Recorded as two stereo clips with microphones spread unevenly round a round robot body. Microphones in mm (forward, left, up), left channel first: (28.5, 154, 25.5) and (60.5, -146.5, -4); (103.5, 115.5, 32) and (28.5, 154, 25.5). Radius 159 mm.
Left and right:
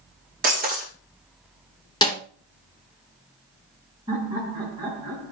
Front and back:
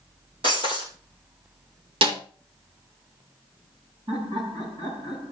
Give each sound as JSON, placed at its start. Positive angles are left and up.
{"t": 0.4, "sound": "breaking glass", "azimuth_deg": -150, "distance_m": 3.0}
{"t": 2.0, "sound": "a snare drum", "azimuth_deg": 175, "distance_m": 2.0}
{"t": 4.1, "sound": "laughter", "azimuth_deg": -160, "distance_m": 6.5}